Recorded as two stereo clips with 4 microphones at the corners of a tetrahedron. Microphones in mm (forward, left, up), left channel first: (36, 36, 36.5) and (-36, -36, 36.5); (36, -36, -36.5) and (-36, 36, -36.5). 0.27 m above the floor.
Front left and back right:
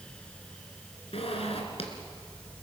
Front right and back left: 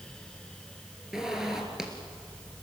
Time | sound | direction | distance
1.1 | a zipper | 50° left | 3 m